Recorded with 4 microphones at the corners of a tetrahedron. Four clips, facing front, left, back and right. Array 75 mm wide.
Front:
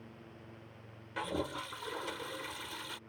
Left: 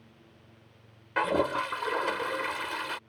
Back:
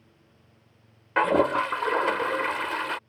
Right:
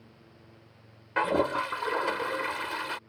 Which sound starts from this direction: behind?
A toilet flushing, at 1.2 s.